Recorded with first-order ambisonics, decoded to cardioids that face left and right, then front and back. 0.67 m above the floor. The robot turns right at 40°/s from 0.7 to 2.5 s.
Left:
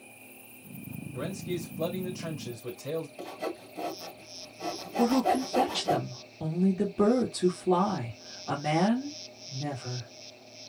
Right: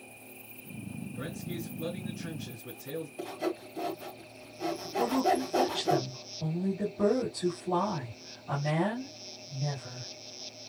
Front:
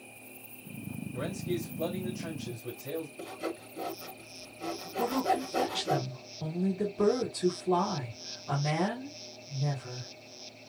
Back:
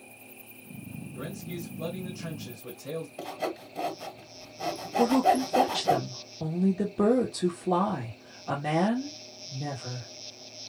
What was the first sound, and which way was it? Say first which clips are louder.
A man speaking: left 6 dB, front 5 dB; 60° left.